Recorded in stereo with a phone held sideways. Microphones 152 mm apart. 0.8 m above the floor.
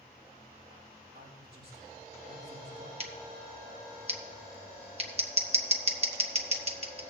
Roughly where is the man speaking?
Right.